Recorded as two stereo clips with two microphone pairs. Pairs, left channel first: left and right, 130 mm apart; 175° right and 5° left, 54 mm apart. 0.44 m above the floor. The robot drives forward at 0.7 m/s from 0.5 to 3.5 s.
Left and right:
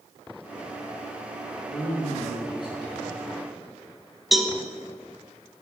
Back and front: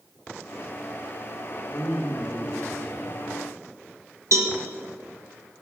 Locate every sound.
1.6 s a man speaking: 140° left, 5.5 m; by 3.2 s 145° left, 6.5 m
4.3 s a cowbell: straight ahead, 1.6 m